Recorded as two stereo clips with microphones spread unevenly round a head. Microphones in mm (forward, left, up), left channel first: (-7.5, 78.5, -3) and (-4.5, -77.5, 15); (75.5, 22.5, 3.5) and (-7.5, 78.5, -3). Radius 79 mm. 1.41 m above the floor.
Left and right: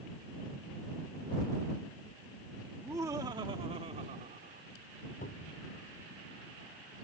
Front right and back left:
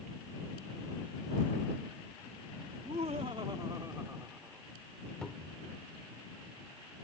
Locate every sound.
2.7 s laughter: 165° right; by 4.7 s 130° right
5.2 s a cupboard door: 50° left